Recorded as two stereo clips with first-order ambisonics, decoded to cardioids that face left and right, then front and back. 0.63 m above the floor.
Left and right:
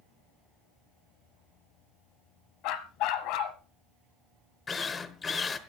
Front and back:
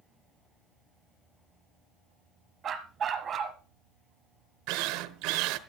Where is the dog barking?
115° left, 1.1 m.